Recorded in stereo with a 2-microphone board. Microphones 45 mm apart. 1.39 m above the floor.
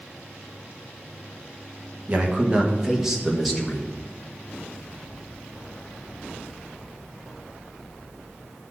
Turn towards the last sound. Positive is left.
turn(degrees=5)  # may be behind; listen again after turning